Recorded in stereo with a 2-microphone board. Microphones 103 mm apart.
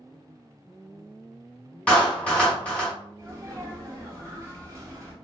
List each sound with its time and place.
1.9 s a clap: 10° left (ahead or behind), 1.5 m
3.2 s a sneeze: 30° right (ahead or behind), 1.9 m